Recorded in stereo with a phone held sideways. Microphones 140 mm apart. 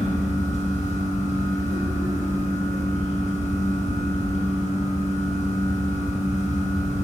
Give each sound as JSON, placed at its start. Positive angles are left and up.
{"t": 0.0, "sound": "a fan", "side_deg": 55, "distance_m": 1.1}